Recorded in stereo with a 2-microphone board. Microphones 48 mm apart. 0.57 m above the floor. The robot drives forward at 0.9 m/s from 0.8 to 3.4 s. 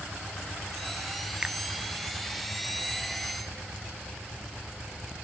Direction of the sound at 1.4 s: 20° right (ahead or behind).